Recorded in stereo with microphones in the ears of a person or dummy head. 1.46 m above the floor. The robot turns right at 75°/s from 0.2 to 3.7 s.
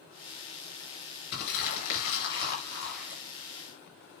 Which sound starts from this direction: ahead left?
Crumpling, at 1.3 s.